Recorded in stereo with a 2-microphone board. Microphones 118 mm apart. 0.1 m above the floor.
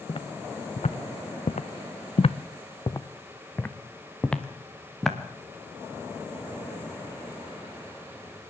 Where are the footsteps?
50° left (ahead or behind), 1.4 m; by 5.2 s 5° left (ahead or behind), 2 m.